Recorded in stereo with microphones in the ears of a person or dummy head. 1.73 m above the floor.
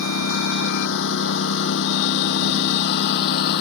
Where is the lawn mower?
75° left (ahead or behind); by 3.6 s 55° left (ahead or behind).